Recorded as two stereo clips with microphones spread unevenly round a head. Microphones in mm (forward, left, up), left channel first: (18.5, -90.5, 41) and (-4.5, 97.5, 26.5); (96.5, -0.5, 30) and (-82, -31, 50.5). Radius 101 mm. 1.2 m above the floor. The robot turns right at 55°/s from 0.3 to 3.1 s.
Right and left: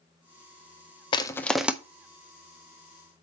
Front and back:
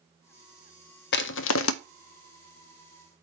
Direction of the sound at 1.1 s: 20° right.